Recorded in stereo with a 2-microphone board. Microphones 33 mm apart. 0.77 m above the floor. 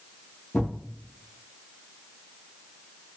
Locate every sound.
0.5 s a thud: 55° left (ahead or behind), 1.3 m